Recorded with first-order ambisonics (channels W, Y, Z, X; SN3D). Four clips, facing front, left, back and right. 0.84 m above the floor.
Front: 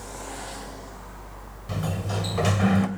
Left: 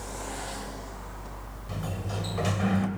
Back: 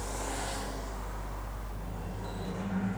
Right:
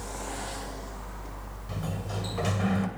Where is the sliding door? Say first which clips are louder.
Even, front 18 dB; 5° left, 2.5 m.